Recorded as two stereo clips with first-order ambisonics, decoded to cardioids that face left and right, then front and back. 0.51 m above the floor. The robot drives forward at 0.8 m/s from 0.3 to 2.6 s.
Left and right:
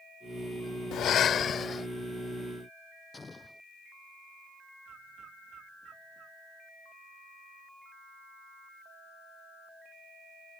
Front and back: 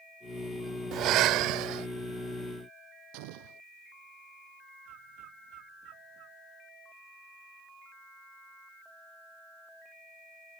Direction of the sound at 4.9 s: 145° right.